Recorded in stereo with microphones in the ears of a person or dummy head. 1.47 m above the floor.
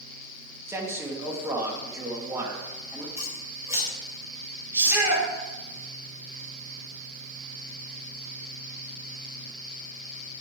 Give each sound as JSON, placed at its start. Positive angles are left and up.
{"t": 0.7, "sound": "a man speaking", "side_deg": -15, "distance_m": 2.0}
{"t": 3.2, "sound": "scissors", "side_deg": -15, "distance_m": 3.5}
{"t": 4.7, "sound": "a shout", "side_deg": -15, "distance_m": 2.5}